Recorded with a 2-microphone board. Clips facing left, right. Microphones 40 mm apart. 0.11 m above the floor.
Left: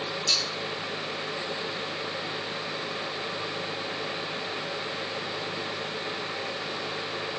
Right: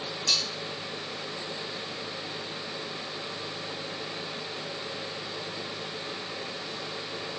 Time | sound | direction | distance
0.3 | cutlery clinking | 80° right | 4 m